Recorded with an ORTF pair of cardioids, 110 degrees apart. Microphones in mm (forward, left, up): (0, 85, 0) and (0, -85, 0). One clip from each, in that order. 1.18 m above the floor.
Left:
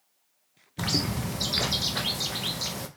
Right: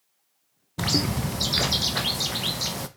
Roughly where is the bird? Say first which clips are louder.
Right 3 dB; ahead.